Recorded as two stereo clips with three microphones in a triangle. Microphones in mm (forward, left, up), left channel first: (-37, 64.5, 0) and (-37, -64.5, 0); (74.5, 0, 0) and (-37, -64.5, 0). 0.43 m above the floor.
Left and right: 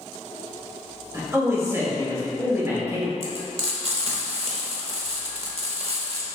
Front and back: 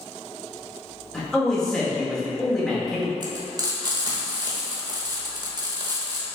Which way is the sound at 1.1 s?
50° right.